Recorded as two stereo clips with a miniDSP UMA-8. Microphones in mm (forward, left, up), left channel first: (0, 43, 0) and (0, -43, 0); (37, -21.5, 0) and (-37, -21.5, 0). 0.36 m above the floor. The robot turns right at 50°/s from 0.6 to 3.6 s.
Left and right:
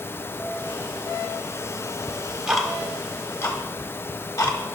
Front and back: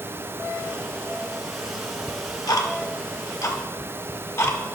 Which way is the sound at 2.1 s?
25° right.